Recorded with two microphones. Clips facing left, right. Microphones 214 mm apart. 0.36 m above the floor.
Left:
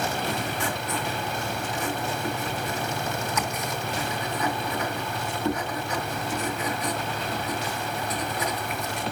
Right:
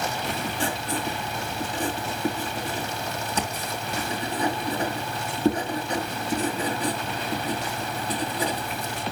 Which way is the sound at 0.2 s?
30° right (ahead or behind).